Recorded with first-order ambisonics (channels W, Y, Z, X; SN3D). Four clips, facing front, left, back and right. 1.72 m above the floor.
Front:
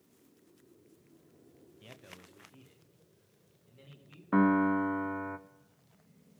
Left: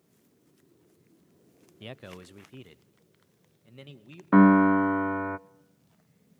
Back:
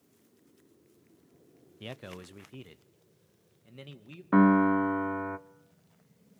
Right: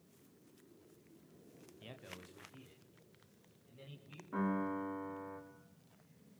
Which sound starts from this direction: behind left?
A man speaking, at 1.8 s.